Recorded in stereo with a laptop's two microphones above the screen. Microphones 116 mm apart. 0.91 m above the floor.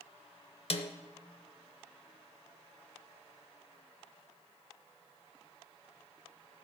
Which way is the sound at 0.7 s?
55° left (ahead or behind).